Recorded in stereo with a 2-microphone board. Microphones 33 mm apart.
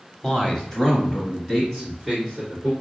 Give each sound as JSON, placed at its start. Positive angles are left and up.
{"t": 0.2, "sound": "a man speaking", "side_deg": 15, "distance_m": 1.0}